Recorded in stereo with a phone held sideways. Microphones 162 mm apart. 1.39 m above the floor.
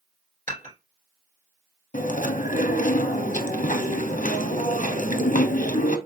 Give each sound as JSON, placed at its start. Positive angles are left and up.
{"t": 0.5, "sound": "dishes clattering", "side_deg": -55, "distance_m": 3.0}
{"t": 1.9, "sound": "chewing", "side_deg": 55, "distance_m": 0.7}